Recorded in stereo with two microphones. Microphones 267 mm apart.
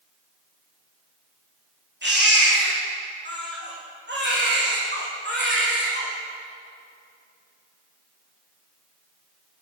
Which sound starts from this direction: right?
A baby crying, at 2.0 s.